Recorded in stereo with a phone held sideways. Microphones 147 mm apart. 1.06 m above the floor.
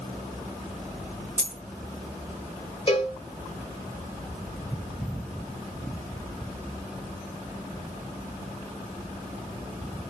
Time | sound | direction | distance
1.4 | a dropped coin | 55° right (ahead or behind) | 1.1 m
2.9 | a cowbell | 35° left (ahead or behind) | 1.4 m